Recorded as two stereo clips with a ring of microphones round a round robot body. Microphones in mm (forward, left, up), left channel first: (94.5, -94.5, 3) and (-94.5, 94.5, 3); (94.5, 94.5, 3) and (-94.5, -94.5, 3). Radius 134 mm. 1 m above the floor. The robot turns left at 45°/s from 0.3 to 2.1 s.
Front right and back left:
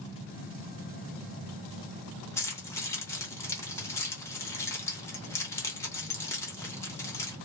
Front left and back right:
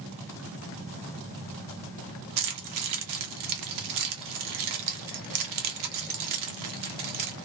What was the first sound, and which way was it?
Keys jangling, 125° right.